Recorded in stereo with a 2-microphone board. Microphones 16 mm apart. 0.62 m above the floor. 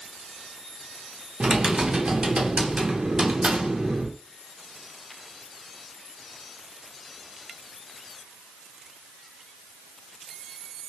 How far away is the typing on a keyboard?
About 0.6 m.